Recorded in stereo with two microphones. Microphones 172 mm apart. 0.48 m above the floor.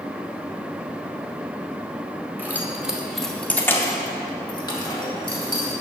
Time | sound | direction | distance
2.4 | keys jangling | 10° right (ahead or behind) | 0.9 m